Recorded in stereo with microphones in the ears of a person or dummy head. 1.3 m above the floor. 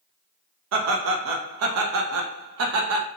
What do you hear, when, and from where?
0.7 s laughter: 75° right (ahead or behind), 0.6 m